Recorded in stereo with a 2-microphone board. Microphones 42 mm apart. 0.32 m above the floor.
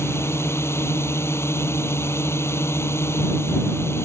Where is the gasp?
No gasp in this recording.